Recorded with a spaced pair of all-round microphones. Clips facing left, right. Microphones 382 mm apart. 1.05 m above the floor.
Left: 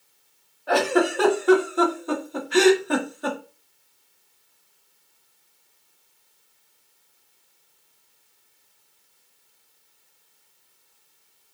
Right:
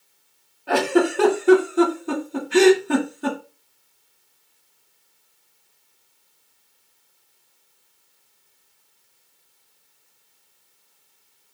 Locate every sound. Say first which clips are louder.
0.7 s a giggle: right 2 dB; 40° right (ahead or behind), 1.8 m